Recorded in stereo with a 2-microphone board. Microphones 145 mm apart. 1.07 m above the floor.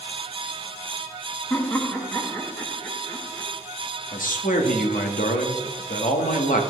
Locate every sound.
1.5 s laughter: 15° left (ahead or behind), 1.4 m
4.1 s a man speaking: 80° left, 1.5 m